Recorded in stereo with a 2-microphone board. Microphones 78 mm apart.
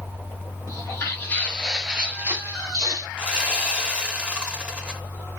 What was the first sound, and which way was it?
Footsteps, 45° left (ahead or behind).